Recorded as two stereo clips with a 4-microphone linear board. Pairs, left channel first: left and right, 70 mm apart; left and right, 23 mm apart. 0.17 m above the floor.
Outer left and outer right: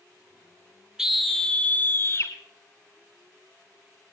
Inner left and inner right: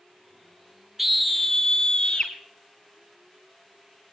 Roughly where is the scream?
Centre.